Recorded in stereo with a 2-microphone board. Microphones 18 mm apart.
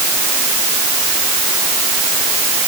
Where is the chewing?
I don't hear chewing.